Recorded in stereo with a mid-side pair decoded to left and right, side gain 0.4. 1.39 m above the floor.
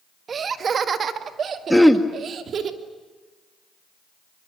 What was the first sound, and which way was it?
Laughter, 50° right.